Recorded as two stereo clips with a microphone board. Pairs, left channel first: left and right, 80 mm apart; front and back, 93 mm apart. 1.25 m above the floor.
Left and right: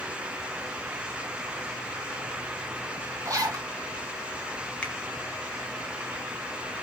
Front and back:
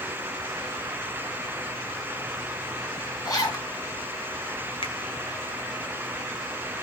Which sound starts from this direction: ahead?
A finger snap, at 4.8 s.